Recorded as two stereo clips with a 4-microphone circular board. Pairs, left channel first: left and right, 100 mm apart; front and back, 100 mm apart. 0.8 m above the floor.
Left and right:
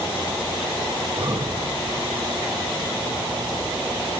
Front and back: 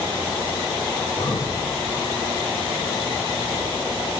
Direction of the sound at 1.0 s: 90° right.